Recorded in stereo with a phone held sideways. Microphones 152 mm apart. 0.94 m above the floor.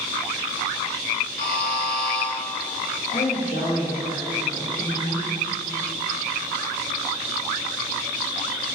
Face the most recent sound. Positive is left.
turn(degrees=55)  # may be behind; listen again after turning